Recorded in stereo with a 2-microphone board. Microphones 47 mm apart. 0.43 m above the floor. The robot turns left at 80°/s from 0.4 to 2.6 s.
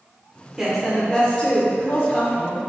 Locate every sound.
0.6 s a woman speaking: 10° right (ahead or behind), 1.0 m; by 2.6 s 20° left (ahead or behind), 1.0 m